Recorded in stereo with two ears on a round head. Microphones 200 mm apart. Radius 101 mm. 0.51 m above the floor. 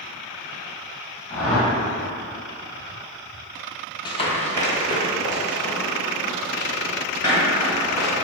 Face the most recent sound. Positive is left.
turn(degrees=45)  # may be behind; listen again after turning